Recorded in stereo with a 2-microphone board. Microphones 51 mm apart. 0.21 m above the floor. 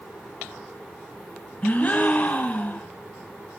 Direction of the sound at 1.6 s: 30° left (ahead or behind).